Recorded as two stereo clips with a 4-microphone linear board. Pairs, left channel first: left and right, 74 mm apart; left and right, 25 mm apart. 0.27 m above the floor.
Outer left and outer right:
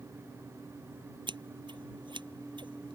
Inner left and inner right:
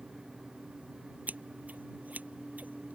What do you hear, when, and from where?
1.3 s scissors: 80° right